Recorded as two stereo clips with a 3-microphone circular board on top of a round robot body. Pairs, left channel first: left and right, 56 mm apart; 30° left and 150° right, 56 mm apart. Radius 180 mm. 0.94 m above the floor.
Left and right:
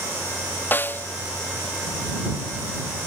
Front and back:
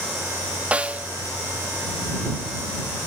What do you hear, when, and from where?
0.7 s a snare drum: 140° left